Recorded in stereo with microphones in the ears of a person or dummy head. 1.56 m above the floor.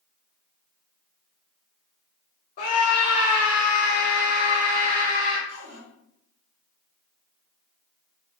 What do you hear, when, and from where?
2.6 s a scream: 40° left (ahead or behind), 0.6 m; by 5.4 s 45° right (ahead or behind), 1.4 m
5.5 s a cupboard door: 35° right (ahead or behind), 0.5 m